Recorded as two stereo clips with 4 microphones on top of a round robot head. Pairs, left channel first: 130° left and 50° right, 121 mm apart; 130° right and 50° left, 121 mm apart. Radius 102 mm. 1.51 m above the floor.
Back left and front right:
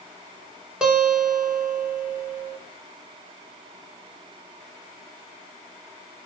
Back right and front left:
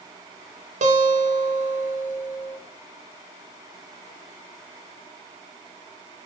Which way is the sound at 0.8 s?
30° left.